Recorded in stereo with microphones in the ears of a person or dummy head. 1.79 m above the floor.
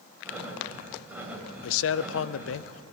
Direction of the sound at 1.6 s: 80° left.